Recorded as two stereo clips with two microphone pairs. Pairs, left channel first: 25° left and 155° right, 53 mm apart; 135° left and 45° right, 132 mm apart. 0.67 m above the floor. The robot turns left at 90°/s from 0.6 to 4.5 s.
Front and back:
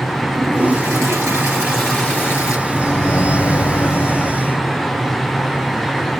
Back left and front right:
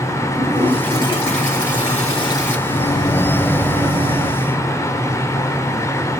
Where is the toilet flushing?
130° right, 3 m; by 2.6 s 55° left, 3 m.